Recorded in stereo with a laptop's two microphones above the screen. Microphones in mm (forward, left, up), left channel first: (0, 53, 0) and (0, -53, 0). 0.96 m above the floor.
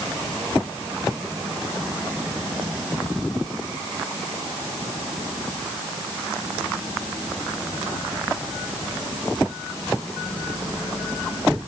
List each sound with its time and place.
Only background noise.